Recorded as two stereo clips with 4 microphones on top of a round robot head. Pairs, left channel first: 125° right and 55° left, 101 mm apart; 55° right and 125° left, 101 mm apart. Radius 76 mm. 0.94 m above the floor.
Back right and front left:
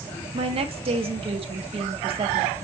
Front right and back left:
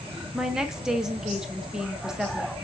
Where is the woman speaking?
45° left, 0.7 m.